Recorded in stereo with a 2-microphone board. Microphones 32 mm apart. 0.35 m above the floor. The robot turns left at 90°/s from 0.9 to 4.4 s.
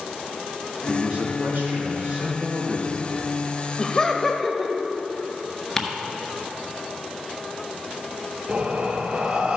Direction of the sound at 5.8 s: 10° left (ahead or behind).